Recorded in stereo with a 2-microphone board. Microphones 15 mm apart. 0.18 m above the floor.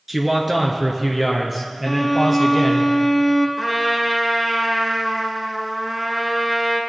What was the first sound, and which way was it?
A man speaking, 20° right (ahead or behind).